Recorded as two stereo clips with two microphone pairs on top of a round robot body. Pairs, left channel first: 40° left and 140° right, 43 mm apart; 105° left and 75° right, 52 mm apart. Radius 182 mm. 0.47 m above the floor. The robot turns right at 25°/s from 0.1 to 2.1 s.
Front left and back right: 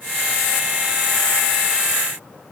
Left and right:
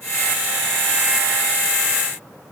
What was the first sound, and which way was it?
Only background noise.